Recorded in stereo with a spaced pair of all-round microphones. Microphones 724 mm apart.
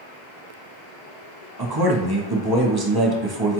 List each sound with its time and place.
1.6 s a man speaking: 30° right (ahead or behind), 0.9 m